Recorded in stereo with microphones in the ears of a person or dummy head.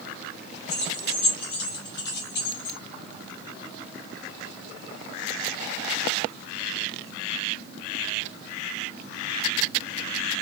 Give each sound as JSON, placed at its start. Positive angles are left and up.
{"t": 0.7, "sound": "keys jangling", "side_deg": 55, "distance_m": 2.5}